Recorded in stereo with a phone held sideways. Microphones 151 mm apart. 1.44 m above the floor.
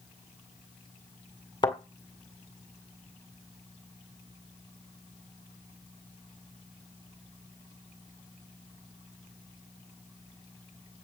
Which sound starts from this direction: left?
A thud, at 1.6 s.